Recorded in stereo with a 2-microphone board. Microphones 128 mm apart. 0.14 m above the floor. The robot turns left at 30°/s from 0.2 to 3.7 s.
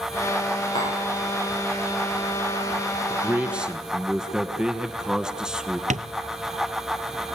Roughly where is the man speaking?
Centre.